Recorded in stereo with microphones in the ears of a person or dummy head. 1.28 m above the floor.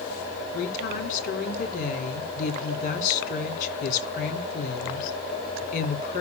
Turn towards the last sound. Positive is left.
turn(degrees=45)  # may be behind; listen again after turning